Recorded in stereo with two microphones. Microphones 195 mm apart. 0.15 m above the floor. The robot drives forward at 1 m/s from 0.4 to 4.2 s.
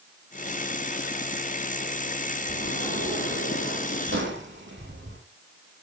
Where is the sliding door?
70° right (ahead or behind), 7 m; by 5.2 s 75° right (ahead or behind), 7 m.